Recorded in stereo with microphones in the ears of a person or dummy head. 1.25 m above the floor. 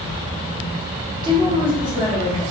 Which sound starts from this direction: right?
A woman speaking, at 1.2 s.